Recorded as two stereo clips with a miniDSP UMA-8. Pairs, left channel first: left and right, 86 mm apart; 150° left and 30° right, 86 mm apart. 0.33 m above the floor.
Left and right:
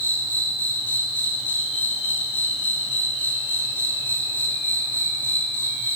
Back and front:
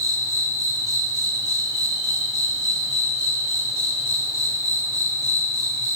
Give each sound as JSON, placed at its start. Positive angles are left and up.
{"t": 0.0, "sound": "an insect", "azimuth_deg": 20, "distance_m": 6.5}